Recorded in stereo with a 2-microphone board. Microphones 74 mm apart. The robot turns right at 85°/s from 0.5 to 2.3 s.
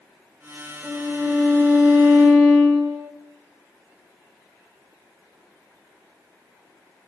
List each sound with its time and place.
0.8 s a violin: 165° left, 1.3 m; by 3.1 s 70° right, 1.3 m